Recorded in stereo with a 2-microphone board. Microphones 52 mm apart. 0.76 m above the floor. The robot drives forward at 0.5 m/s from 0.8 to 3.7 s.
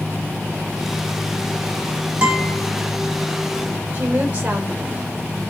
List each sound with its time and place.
2.2 s a guitar: 25° right (ahead or behind), 1.8 m
3.9 s a woman speaking: 30° right (ahead or behind), 3 m